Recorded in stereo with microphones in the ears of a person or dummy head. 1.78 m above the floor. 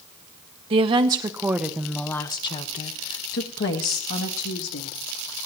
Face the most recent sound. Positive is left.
turn(degrees=70)  # may be behind; listen again after turning